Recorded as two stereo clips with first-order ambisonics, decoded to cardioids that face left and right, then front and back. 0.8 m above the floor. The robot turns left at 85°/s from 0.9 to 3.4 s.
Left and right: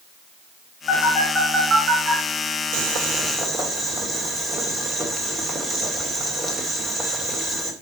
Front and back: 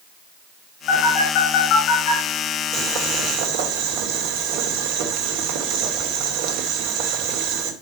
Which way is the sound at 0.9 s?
45° left.